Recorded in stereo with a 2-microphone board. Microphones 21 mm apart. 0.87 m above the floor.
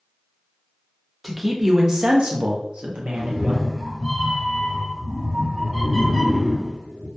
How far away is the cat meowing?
About 1.3 m.